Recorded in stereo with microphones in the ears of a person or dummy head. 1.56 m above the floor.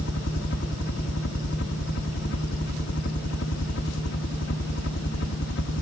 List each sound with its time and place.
0.0 s a helicopter: 65° left (ahead or behind)